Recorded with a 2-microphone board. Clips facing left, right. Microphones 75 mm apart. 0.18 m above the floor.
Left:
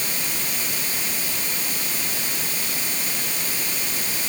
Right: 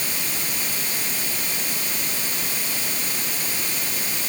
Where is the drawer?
No drawer in this recording.